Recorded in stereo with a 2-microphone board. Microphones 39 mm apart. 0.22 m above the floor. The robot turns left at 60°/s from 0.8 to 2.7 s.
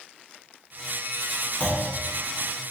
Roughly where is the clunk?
Left.